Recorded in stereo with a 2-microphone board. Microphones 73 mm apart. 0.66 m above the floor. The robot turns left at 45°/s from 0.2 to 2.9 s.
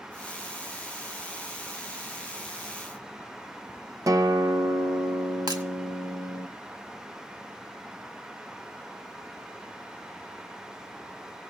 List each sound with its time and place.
4.1 s a guitar: 50° right (ahead or behind), 0.8 m
5.5 s breaking glass: 65° right (ahead or behind), 1.9 m